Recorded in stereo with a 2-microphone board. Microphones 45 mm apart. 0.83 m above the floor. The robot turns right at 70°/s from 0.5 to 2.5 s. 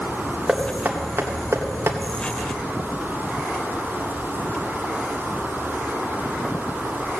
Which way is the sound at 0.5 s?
15° right (ahead or behind).